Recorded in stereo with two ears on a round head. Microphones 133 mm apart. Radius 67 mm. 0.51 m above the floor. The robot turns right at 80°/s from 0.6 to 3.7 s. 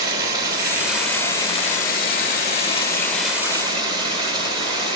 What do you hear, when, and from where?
0.0 s running water: 35° right, 1.4 m; by 5.0 s 145° right, 1.4 m